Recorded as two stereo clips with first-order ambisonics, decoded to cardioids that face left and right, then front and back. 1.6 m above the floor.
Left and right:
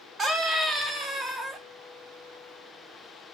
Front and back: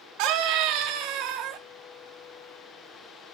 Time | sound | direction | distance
0.2 | a scream | 160° right | 1.7 m